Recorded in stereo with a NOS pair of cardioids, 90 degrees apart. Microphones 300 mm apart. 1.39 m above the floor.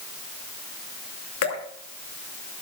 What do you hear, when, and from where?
1.4 s dripping: 70° left, 2 m